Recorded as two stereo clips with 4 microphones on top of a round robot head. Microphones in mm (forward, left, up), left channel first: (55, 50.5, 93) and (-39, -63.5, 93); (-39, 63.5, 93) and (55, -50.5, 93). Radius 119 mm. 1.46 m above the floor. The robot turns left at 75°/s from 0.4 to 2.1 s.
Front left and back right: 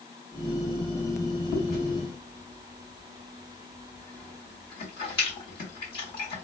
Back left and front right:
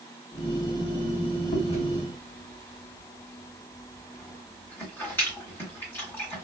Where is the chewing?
100° left, 2.5 m; by 6.5 s 55° left, 2.5 m.